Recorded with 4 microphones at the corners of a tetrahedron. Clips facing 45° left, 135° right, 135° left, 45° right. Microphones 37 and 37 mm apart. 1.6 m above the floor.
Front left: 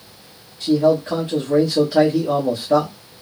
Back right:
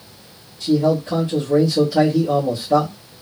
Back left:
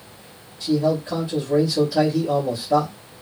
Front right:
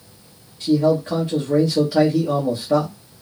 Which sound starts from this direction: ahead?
A man speaking, at 0.6 s.